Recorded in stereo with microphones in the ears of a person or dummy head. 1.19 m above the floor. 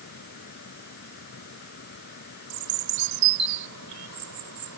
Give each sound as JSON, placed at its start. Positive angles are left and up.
{"t": 0.0, "sound": "a fan", "side_deg": 55}
{"t": 2.5, "sound": "a bird", "side_deg": -80}